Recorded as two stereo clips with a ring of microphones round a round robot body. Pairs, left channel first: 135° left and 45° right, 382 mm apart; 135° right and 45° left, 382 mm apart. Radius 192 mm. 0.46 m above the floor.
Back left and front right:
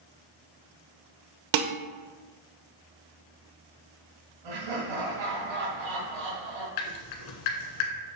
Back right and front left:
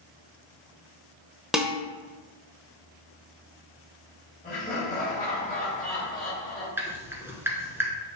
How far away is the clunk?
I don't hear a clunk.